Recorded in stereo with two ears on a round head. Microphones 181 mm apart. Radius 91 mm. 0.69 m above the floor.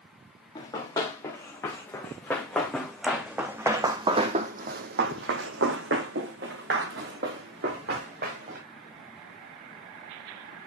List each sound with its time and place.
0.6 s running footsteps: 20° left (ahead or behind), 3.5 m; by 8.6 s 50° right (ahead or behind), 3.5 m